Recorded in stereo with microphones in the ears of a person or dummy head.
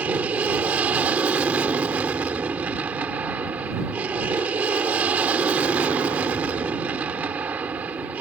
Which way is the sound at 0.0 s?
10° right (ahead or behind).